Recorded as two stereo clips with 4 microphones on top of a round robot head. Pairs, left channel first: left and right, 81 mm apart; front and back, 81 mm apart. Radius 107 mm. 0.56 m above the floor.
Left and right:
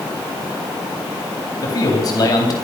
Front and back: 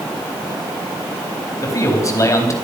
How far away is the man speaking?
About 3.5 m.